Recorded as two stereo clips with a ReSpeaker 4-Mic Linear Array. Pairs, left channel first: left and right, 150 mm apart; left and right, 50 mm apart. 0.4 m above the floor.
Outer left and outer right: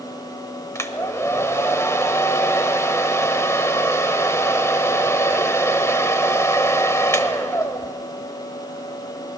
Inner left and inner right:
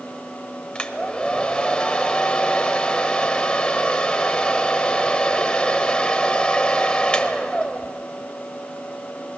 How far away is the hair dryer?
About 1.1 m.